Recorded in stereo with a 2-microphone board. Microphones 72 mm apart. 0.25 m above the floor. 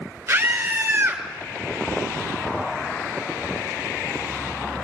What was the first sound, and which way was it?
A scream, 35° right (ahead or behind).